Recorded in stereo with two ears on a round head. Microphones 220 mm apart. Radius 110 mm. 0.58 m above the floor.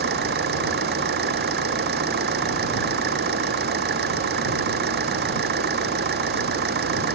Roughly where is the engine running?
Right.